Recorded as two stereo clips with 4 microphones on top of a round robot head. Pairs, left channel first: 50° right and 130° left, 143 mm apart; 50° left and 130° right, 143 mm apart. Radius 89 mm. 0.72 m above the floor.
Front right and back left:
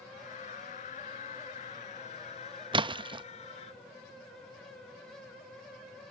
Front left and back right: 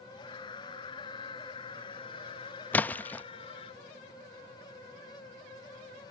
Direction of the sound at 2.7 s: 120° left.